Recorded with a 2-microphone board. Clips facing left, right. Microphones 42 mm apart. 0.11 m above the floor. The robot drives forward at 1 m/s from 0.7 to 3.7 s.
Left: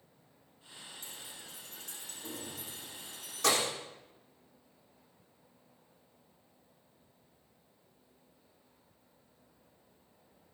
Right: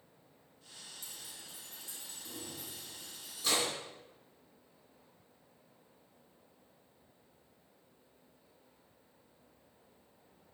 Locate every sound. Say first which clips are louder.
1.0 s keys jangling: left 2 dB; 50° left (ahead or behind), 4.5 m; by 3.7 s 75° left (ahead or behind), 3.5 m